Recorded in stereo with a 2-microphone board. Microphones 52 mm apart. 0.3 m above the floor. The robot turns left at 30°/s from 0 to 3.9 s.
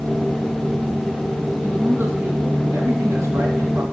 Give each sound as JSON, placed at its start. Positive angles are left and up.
{"t": 1.6, "sound": "a man speaking", "azimuth_deg": -50, "distance_m": 2.5}